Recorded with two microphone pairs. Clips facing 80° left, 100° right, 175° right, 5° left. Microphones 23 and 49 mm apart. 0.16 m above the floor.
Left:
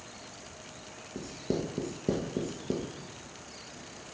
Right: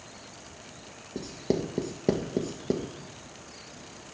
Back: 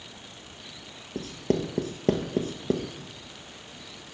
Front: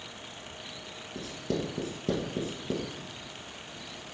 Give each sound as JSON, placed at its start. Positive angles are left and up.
{"t": 1.1, "sound": "writing", "azimuth_deg": -145, "distance_m": 1.3}